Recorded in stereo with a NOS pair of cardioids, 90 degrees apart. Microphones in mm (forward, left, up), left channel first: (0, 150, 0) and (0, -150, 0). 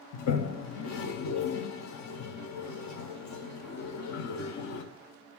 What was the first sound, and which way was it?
A toilet flushing, 70° left.